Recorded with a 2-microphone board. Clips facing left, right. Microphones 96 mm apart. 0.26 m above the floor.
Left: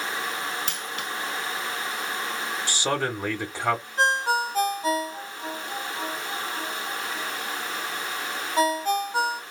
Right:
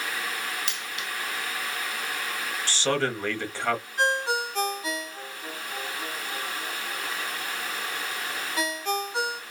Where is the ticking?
I don't hear ticking.